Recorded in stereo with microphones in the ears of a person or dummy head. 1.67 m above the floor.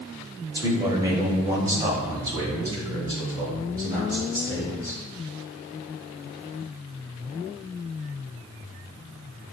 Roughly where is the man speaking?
Right.